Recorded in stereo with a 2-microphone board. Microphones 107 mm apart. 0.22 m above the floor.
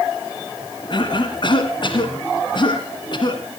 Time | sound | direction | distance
0.9 | a cough | 50° left (ahead or behind) | 1.9 m